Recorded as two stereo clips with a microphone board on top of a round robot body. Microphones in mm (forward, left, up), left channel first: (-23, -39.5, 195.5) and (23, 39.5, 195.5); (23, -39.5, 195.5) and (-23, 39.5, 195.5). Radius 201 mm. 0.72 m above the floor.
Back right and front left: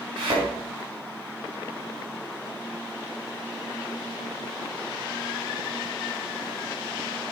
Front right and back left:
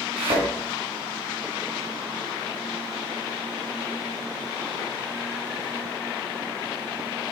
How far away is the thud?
About 3.5 m.